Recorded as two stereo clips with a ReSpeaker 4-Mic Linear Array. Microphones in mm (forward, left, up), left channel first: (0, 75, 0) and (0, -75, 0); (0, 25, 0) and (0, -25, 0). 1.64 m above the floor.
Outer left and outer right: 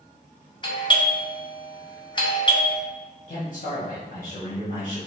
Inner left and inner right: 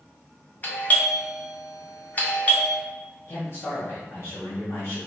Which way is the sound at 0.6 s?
30° left (ahead or behind).